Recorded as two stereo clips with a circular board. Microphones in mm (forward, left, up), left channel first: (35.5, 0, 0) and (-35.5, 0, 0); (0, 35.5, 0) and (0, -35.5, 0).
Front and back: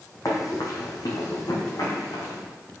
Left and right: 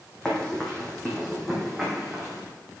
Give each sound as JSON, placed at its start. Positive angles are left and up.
{"t": 0.2, "sound": "running footsteps", "azimuth_deg": 15, "distance_m": 2.0}